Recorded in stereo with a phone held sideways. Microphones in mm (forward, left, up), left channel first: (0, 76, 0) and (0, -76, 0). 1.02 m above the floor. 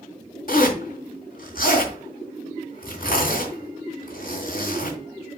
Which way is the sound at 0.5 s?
70° left (ahead or behind).